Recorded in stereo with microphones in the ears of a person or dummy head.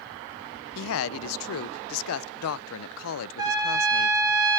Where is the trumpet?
20° right (ahead or behind), 3 m.